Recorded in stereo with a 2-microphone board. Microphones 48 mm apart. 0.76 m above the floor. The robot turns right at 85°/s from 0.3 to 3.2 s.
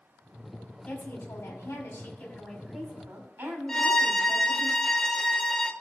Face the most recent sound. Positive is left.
turn(degrees=10)  # may be behind; listen again after turning